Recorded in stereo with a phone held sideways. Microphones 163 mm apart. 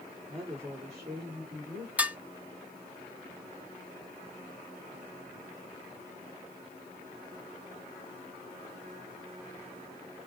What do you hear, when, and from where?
0.3 s a woman speaking: 35° right (ahead or behind), 3 m; by 1.9 s 45° right (ahead or behind), 4 m
2.0 s dishes clattering: 10° right (ahead or behind), 0.6 m